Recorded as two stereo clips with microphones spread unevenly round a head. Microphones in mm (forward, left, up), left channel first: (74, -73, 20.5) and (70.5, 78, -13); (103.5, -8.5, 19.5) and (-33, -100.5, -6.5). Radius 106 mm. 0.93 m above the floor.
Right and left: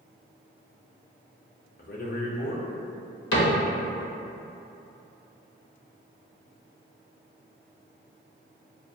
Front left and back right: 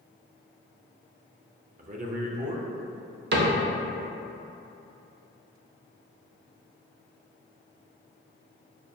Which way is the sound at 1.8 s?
135° right.